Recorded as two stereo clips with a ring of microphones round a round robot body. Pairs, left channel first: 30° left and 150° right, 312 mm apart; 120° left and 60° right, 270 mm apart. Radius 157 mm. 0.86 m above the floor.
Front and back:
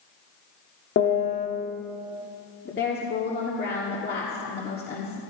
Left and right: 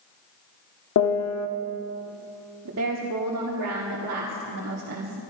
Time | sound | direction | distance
1.0 | a piano | 90° left | 1.2 m
2.6 | a woman speaking | 30° right | 1.6 m